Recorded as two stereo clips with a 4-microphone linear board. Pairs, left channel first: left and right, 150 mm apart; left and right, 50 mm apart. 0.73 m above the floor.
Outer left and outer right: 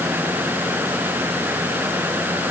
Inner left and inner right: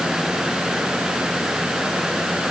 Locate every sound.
Only background noise.